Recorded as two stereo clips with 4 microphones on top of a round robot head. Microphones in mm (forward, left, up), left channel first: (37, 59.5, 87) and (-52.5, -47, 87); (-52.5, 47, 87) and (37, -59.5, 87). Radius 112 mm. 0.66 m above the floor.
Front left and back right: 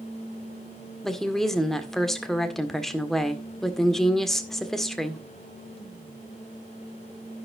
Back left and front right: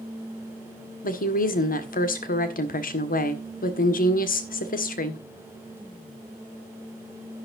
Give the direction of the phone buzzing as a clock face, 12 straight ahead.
I don't hear a phone buzzing.